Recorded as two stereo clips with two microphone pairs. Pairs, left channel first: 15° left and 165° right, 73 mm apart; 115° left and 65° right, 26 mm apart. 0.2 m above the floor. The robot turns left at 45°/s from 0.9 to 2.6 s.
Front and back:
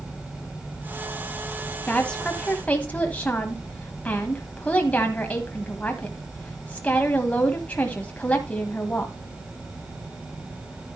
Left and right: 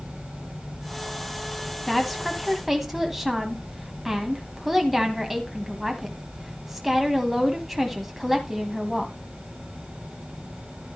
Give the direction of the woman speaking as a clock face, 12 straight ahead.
10 o'clock.